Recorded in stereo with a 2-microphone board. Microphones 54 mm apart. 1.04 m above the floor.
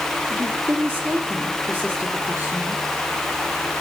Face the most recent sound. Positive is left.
turn(degrees=-35)  # may be behind; listen again after turning